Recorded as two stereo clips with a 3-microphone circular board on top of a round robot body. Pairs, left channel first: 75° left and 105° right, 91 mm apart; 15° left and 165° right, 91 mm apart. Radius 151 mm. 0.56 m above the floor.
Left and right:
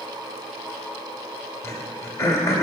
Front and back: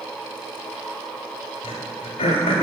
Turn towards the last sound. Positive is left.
turn(degrees=15)